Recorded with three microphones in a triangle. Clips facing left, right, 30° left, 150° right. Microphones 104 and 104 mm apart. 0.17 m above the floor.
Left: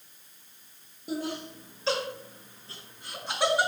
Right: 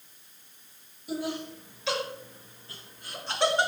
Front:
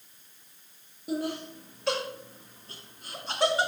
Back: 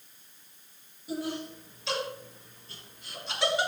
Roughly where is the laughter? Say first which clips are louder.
Right 1 dB, front 2 dB; ahead left.